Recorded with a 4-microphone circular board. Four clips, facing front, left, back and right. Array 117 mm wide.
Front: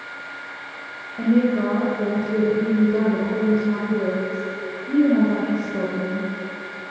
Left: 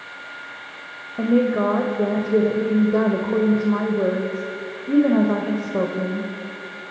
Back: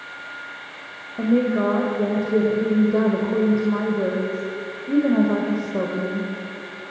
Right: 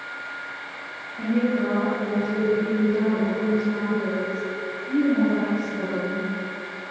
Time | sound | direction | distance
1.2 | a woman speaking | 115° left | 3 m